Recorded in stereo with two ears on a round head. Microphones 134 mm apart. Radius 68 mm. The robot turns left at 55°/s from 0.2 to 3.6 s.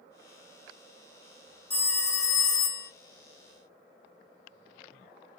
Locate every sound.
1.7 s a phone ringing: 10° left (ahead or behind), 0.7 m; by 2.9 s 25° left (ahead or behind), 0.7 m